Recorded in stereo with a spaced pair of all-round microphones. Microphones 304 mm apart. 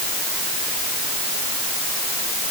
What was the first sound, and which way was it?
Only background noise.